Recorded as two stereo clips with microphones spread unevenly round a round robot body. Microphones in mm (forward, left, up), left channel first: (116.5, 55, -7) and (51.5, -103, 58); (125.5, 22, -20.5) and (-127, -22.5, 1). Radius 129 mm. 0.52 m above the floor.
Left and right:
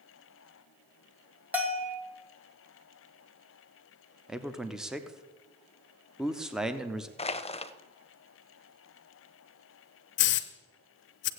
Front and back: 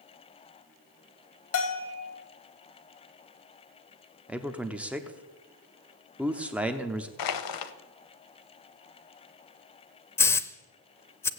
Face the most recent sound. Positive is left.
turn(degrees=90)